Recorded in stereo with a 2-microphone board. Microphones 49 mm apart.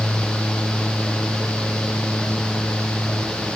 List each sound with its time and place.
Only background noise.